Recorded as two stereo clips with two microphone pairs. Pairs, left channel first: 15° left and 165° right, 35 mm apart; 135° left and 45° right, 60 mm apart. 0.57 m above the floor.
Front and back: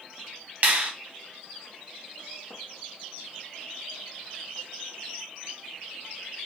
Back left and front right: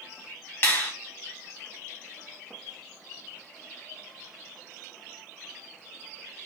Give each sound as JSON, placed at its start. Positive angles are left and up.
{"t": 0.6, "sound": "a finger snap", "azimuth_deg": 180, "distance_m": 0.8}